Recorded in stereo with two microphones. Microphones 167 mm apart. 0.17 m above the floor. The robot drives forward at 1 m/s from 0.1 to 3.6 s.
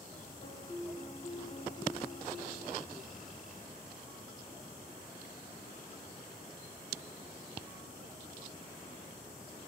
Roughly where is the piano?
Left.